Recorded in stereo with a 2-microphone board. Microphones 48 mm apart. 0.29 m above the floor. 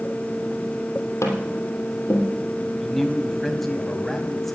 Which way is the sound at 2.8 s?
5° left (ahead or behind).